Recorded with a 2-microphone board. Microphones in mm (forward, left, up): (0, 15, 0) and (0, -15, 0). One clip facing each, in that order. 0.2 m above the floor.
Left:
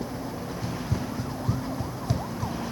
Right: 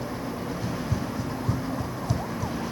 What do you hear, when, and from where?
0.6 s running footsteps: 10° left (ahead or behind); by 2.6 s 20° left (ahead or behind)